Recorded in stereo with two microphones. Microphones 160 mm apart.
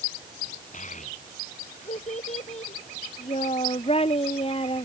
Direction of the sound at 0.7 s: 50° left (ahead or behind).